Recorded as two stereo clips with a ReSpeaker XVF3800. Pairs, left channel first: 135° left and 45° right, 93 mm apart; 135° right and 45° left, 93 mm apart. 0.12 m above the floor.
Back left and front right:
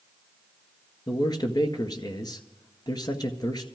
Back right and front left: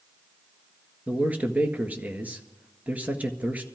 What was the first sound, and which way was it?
A man speaking, 115° left.